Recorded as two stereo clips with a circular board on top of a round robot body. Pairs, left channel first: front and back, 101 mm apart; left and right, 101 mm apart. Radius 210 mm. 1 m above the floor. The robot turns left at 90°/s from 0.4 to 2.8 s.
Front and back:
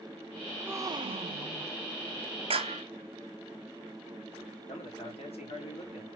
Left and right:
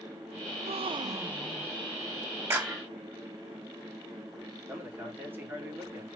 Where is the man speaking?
20° right, 4 m.